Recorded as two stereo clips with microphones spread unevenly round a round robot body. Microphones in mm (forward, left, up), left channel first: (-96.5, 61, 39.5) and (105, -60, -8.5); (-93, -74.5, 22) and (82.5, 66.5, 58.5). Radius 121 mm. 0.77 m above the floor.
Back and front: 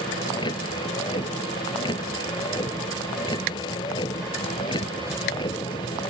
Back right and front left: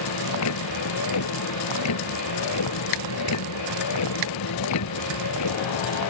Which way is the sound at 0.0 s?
140° right.